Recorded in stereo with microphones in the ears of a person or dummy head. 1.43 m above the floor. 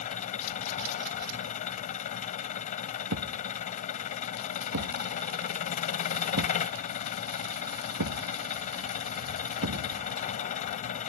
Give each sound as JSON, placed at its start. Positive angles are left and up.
{"t": 0.0, "sound": "an engine running", "side_deg": 45}
{"t": 3.1, "sound": "a thud", "side_deg": -75}